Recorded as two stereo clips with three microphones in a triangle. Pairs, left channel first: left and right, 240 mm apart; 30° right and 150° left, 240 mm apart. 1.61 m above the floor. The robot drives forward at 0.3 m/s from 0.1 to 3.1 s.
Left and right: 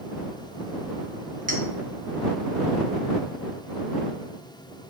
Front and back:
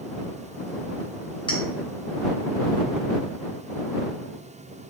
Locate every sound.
1.5 s a clink: 85° right, 0.8 m; by 1.6 s 90° right, 0.8 m